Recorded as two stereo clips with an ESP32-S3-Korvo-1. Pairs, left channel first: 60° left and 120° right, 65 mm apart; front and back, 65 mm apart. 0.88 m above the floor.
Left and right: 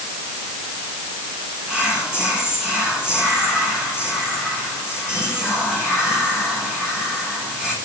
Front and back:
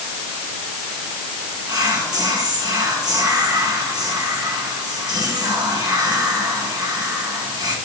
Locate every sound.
1.7 s whispering: 165° left, 7.5 m